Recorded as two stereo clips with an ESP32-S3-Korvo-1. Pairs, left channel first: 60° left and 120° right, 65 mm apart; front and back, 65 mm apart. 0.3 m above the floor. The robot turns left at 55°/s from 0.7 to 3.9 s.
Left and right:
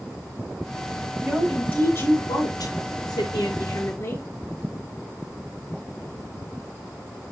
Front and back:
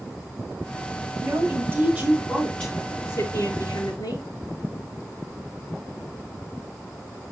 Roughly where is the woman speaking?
Behind left.